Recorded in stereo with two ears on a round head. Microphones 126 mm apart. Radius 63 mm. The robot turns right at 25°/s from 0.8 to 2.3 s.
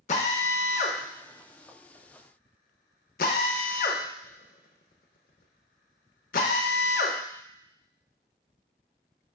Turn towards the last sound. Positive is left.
turn(degrees=65)  # may be behind; listen again after turning